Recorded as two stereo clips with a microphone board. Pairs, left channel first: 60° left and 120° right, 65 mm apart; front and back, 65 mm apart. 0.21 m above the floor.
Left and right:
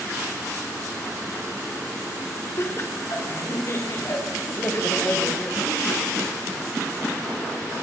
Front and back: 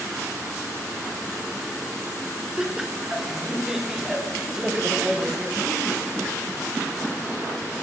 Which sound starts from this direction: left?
Laughter, at 2.6 s.